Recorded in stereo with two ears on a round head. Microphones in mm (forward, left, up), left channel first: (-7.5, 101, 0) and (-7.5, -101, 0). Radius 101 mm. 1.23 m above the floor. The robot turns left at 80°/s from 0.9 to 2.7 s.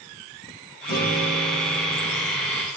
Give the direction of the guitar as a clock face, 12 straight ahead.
9 o'clock.